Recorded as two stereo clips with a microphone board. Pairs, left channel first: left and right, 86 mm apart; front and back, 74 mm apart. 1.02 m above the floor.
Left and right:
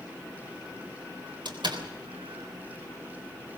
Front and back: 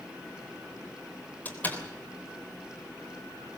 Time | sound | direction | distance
1.4 | a door slam | 65° right | 3.5 m